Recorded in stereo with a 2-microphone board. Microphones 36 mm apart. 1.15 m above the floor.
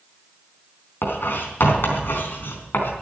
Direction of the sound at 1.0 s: 75° left (ahead or behind).